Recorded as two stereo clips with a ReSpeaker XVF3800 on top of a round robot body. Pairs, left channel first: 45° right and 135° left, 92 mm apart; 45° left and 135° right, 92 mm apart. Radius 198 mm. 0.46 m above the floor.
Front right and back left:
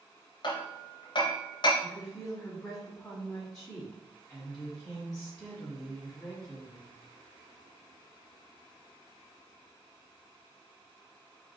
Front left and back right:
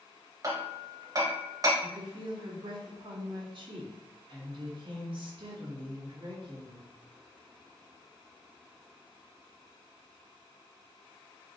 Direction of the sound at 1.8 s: 120° right.